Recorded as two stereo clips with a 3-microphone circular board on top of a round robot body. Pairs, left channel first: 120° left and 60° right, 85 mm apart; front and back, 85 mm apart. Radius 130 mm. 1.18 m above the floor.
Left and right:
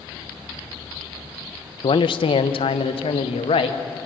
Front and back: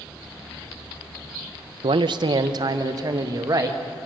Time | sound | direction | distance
1.8 | a man speaking | 150° left | 0.7 m